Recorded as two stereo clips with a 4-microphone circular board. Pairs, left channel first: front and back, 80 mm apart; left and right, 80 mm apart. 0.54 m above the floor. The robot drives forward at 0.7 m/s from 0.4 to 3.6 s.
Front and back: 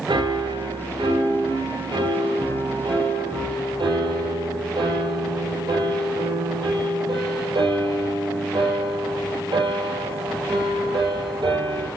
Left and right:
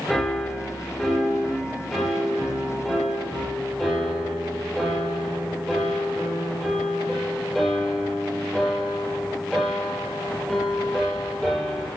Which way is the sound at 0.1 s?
170° left.